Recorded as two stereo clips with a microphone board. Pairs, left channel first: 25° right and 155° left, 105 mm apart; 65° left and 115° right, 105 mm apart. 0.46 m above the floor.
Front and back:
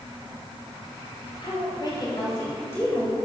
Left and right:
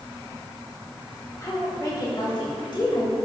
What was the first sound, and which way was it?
A woman speaking, 15° left.